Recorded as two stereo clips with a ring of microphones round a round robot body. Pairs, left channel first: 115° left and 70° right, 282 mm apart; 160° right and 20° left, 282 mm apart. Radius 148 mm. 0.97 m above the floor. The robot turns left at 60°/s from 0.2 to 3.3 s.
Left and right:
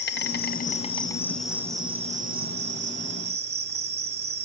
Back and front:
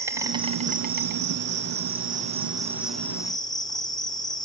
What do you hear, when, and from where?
0.0 s an insect: 95° left, 1.3 m; by 4.4 s 90° right, 1.3 m